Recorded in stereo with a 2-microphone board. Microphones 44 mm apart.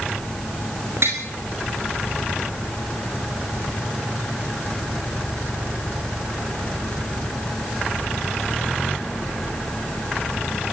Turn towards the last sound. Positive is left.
turn(degrees=-70)  # may be behind; listen again after turning